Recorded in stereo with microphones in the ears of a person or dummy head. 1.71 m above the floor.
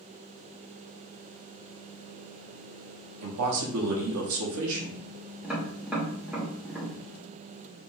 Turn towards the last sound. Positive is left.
turn(degrees=0)  # may be behind; listen again after turning